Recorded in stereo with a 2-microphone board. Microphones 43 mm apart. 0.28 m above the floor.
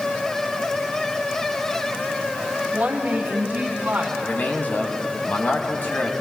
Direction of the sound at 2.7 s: 40° right (ahead or behind).